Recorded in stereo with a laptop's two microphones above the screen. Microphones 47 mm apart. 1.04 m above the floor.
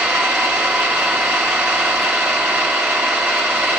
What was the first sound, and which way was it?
An engine running, 55° right (ahead or behind).